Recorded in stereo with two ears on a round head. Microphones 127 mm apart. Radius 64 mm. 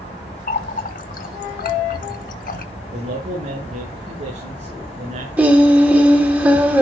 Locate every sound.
0.5 s a running tap: 65° left (ahead or behind), 1.1 m
2.9 s a man speaking: 55° right (ahead or behind), 7 m
5.4 s singing: 10° right (ahead or behind), 1.9 m